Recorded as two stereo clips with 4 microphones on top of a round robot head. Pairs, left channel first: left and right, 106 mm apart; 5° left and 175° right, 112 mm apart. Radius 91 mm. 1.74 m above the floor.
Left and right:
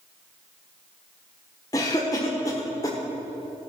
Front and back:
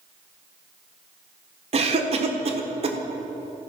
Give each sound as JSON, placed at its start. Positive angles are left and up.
{"t": 1.7, "sound": "a cough", "azimuth_deg": 160, "distance_m": 1.3}